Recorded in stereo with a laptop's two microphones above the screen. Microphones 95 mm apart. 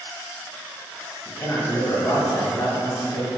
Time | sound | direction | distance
1.2 | a man speaking | 45° left (ahead or behind) | 1.3 m